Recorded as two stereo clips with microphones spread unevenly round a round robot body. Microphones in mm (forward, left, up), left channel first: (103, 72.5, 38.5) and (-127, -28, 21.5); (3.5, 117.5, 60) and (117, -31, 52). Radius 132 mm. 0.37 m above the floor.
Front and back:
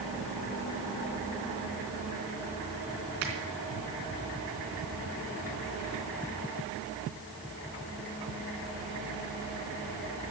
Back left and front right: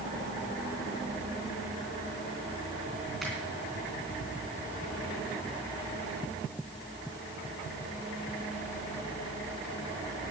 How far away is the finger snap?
About 3.5 m.